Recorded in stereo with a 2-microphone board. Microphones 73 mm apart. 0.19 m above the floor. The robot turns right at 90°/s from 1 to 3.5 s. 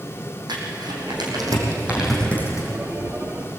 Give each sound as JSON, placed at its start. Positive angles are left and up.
{"t": 0.5, "sound": "crumpling", "side_deg": -80, "distance_m": 5.0}